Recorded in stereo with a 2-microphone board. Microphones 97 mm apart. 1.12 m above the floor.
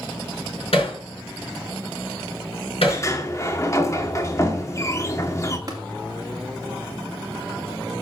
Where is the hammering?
80° left, 5 m.